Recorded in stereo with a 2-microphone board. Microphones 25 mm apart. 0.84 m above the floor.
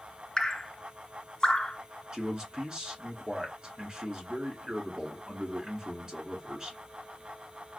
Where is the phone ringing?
No phone ringing in this recording.